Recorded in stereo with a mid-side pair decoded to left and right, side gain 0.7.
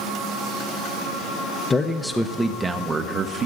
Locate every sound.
1.7 s a man speaking: 20° left, 0.7 m; by 3.5 s 40° right, 1.0 m